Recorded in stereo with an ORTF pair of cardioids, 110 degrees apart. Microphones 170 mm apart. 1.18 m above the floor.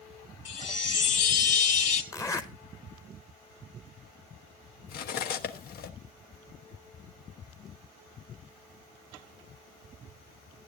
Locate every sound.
0.5 s a chime: 45° left, 2.5 m
2.1 s a zipper: 20° left, 1.1 m
4.9 s cutlery clinking: 65° left, 1.3 m